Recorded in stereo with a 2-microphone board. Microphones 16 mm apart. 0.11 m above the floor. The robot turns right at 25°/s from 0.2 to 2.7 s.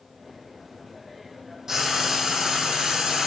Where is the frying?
30° right (ahead or behind), 1.3 m; by 3.3 s 55° right (ahead or behind), 1.3 m.